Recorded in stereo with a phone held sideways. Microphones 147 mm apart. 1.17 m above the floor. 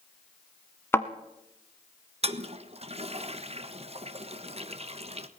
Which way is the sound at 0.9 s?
15° left (ahead or behind).